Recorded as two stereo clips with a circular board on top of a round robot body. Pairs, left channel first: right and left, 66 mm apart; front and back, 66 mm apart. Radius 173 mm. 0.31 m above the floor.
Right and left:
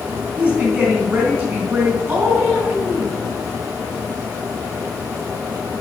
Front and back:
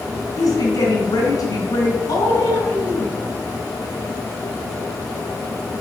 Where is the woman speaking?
30° left, 4.5 m.